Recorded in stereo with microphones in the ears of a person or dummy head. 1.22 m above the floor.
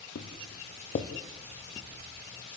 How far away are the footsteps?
About 3 m.